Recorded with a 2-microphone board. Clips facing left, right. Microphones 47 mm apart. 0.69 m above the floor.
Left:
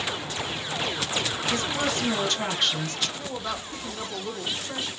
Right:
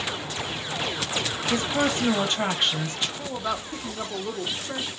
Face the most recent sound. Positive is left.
turn(degrees=-10)  # may be behind; listen again after turning